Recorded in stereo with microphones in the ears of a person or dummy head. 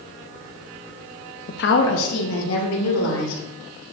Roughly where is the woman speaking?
Left.